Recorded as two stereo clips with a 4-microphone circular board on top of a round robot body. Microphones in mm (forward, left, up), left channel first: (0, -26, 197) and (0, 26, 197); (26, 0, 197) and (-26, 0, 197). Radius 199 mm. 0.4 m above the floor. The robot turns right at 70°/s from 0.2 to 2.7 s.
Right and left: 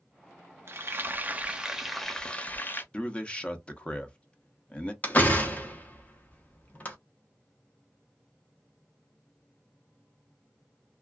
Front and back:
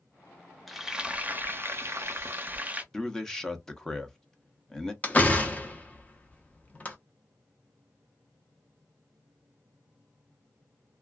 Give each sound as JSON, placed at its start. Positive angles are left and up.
{"t": 0.7, "sound": "frying", "azimuth_deg": 90, "distance_m": 0.8}
{"t": 2.9, "sound": "a man speaking", "azimuth_deg": -65, "distance_m": 0.9}
{"t": 5.0, "sound": "a door slam", "azimuth_deg": -45, "distance_m": 1.1}